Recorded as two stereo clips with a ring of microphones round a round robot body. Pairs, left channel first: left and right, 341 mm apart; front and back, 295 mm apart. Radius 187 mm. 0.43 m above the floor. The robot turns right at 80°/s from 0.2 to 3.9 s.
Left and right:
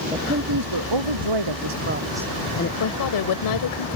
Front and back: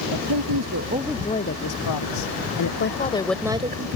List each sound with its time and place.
0.1 s a woman speaking: 165° right; by 2.7 s 35° left
2.8 s a woman speaking: 45° left; by 4.0 s 135° left